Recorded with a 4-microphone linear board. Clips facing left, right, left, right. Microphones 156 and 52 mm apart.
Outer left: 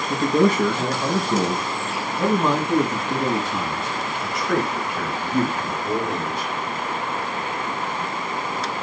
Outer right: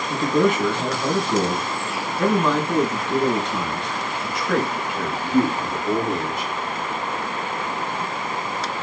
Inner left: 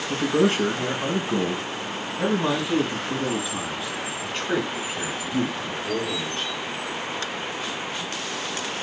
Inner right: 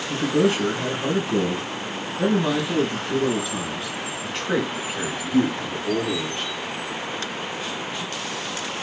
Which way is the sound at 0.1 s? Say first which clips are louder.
Outer left 1 dB, inner right 1 dB; 40° left (ahead or behind).